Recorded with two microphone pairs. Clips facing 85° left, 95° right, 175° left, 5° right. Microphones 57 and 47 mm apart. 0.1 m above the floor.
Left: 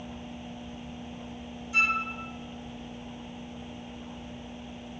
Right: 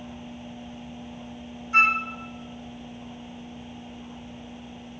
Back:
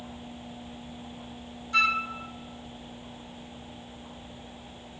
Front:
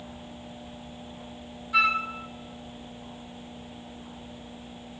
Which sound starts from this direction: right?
A flute, at 1.7 s.